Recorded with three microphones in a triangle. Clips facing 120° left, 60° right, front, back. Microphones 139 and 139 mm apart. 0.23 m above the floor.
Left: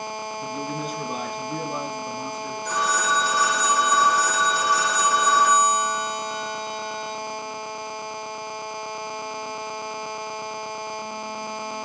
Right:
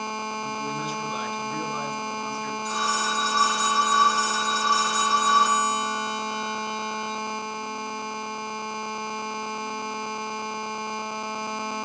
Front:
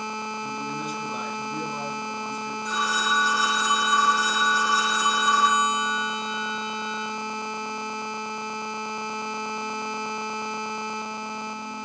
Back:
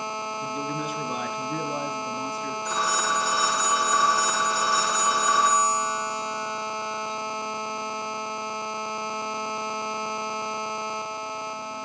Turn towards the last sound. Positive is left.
turn(degrees=150)